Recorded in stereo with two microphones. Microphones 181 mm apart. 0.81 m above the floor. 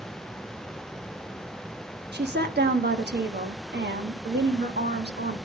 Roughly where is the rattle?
No rattle in this recording.